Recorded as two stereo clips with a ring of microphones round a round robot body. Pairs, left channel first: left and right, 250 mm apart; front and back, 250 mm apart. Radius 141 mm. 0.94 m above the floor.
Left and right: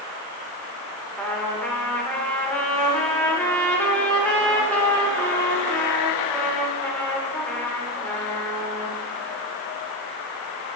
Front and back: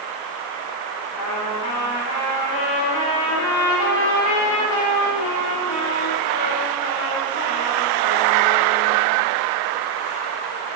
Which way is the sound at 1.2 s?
5° left.